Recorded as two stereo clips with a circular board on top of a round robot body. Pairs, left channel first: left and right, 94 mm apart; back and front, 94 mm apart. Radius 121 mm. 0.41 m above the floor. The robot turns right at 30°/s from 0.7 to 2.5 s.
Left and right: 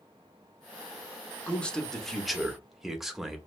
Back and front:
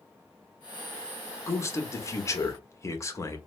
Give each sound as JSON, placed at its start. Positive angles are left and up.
{"t": 1.5, "sound": "a man speaking", "azimuth_deg": 155, "distance_m": 0.9}